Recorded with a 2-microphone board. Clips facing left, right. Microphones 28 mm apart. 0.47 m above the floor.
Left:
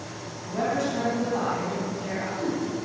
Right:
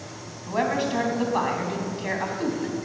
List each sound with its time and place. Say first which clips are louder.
0.5 s a woman speaking: right 2 dB; 50° right (ahead or behind), 3.5 m